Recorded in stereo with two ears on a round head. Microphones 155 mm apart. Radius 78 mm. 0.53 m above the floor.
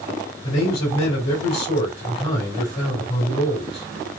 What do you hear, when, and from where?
0.4 s a man speaking: 35° left (ahead or behind), 3 m